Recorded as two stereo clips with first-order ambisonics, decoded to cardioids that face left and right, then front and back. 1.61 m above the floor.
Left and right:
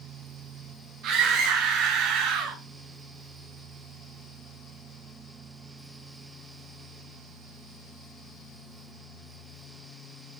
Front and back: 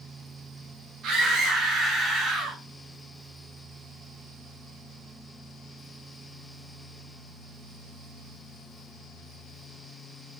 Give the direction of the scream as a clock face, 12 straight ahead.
4 o'clock.